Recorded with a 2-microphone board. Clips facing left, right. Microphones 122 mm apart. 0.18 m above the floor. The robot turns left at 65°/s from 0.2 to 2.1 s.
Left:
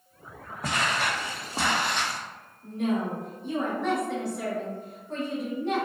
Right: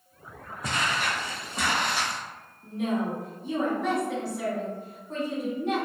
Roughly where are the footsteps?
Left.